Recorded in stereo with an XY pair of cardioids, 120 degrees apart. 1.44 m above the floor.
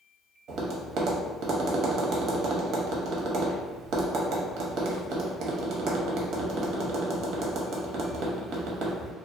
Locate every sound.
0.5 s tapping: 65° right, 0.7 m